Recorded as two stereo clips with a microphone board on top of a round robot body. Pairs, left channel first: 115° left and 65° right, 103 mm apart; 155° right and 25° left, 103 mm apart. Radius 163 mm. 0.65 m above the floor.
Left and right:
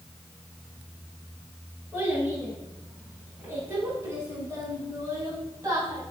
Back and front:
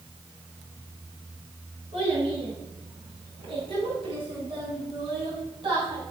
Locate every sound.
1.9 s a child speaking: straight ahead, 7 m; by 6.0 s 15° right, 6 m